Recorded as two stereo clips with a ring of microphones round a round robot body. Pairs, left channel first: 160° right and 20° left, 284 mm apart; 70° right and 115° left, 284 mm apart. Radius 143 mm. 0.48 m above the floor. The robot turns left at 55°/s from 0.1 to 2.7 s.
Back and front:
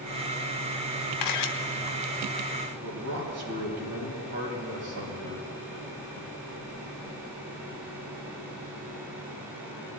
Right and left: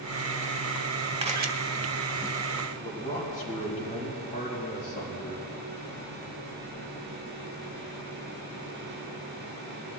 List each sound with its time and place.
1.2 s a camera shutter: 175° right, 0.9 m; by 1.5 s 165° left, 0.9 m
2.8 s a man speaking: 5° right, 3.5 m